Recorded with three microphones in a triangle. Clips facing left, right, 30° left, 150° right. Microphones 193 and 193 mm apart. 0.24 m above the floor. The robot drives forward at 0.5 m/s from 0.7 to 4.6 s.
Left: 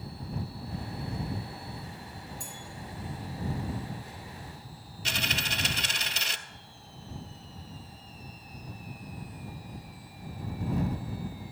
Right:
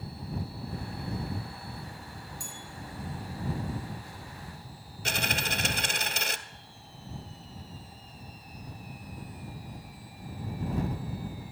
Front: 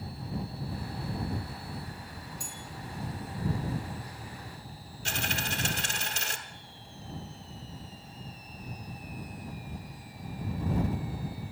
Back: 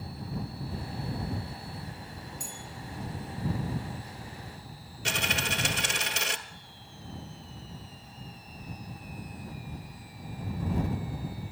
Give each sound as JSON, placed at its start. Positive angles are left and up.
{"t": 2.4, "sound": "a bell", "azimuth_deg": -85, "distance_m": 5.0}
{"t": 5.0, "sound": "a dropped coin", "azimuth_deg": -130, "distance_m": 0.7}